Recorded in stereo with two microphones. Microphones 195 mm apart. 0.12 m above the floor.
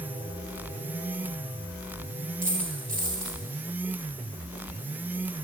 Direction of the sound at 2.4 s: 45° right (ahead or behind).